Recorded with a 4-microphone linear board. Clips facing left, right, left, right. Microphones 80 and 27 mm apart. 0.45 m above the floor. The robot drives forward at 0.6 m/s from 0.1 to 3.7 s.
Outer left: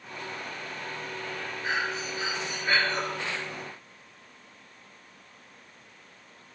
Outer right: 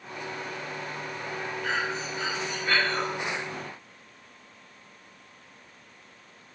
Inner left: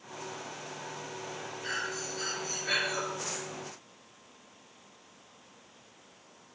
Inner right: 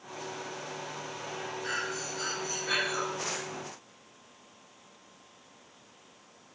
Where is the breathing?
15° left (ahead or behind), 6 m.